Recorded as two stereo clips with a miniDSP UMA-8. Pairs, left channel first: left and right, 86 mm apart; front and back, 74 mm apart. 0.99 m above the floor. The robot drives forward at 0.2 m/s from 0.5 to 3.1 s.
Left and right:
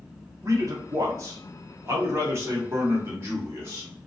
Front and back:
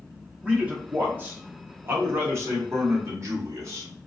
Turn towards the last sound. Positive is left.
turn(degrees=-140)